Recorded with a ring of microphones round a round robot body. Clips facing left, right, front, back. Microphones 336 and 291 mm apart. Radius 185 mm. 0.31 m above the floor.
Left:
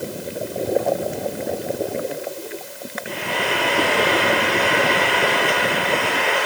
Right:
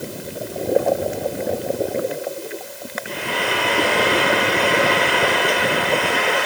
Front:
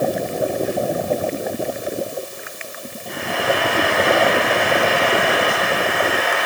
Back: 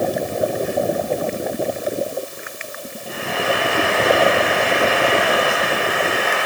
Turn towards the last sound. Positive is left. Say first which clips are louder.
# even, front 1 dB
turn(degrees=-95)